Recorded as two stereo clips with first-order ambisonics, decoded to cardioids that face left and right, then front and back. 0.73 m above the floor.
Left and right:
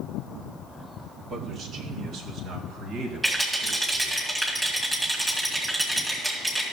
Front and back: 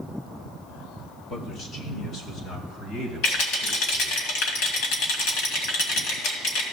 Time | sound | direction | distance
1.3 | a man speaking | 25° right | 1.5 m
3.2 | a rattle | 5° right | 2 m